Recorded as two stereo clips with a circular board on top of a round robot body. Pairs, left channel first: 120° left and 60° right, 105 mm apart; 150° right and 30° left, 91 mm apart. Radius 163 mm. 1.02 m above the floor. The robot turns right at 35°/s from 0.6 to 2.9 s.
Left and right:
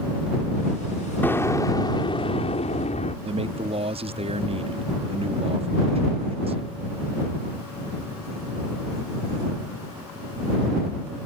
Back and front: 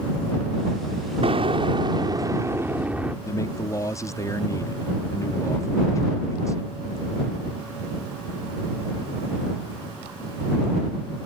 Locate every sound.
1.2 s an explosion: 45° left; by 3.1 s 105° left
3.2 s a man speaking: 90° right